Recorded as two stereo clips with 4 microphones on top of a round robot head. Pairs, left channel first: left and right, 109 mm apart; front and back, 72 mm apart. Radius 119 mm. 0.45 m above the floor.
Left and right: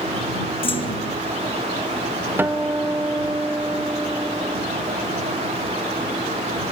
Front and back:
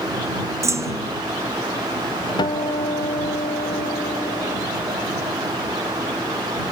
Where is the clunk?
135° left.